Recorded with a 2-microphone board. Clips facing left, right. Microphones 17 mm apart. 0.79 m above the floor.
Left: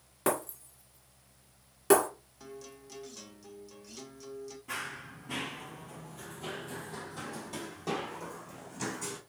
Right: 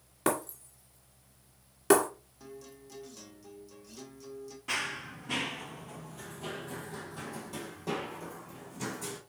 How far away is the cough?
I don't hear a cough.